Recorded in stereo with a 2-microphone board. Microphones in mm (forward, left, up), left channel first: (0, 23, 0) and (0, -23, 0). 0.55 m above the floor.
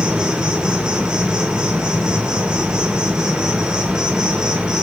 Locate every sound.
0.0 s an insect: 20° right (ahead or behind), 1.3 m